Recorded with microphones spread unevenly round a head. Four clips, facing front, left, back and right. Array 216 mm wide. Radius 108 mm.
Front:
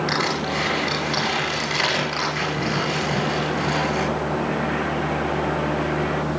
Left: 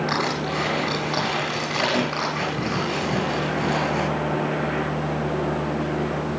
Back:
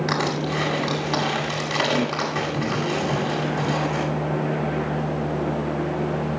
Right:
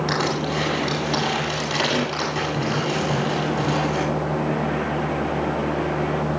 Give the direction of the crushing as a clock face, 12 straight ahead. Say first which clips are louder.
Right 1 dB, even; 4 o'clock.